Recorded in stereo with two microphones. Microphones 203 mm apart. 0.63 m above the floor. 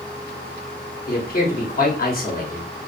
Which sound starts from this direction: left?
A man speaking, at 1.1 s.